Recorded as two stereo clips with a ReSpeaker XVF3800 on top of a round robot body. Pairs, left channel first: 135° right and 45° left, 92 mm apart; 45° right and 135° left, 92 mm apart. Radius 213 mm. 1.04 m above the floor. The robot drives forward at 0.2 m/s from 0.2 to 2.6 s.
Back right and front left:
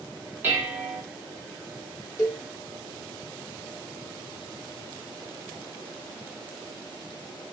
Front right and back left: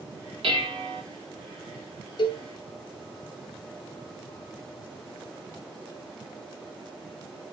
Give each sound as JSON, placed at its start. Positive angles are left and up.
{"t": 0.4, "sound": "dishes clattering", "azimuth_deg": 115, "distance_m": 1.1}
{"t": 2.2, "sound": "a cowbell", "azimuth_deg": -80, "distance_m": 0.5}